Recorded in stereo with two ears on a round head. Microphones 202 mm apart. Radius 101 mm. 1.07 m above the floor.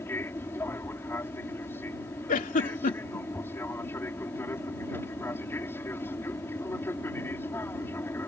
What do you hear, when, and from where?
0.0 s an aircraft: 10° left (ahead or behind)
2.3 s a giggle: 35° left (ahead or behind)